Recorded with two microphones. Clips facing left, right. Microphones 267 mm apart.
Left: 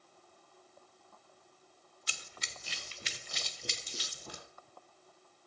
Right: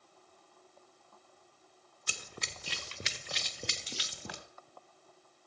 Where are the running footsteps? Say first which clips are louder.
Right 6 dB; 60° right (ahead or behind), 0.7 m; by 4.4 s 85° right, 1.8 m.